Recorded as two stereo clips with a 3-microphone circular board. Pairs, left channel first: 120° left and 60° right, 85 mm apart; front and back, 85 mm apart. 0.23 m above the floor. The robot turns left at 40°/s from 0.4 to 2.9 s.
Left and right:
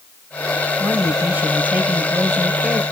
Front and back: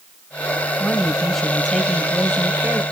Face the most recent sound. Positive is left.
turn(degrees=-140)